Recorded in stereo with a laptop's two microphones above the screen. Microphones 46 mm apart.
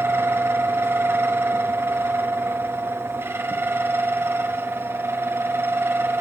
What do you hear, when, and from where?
0.0 s a fan: 55° right (ahead or behind), 1.1 m